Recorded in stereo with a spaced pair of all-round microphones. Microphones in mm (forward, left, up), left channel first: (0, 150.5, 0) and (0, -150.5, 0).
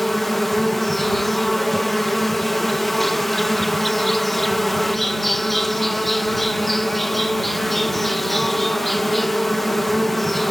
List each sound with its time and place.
0.0 s an insect: centre (ahead or behind)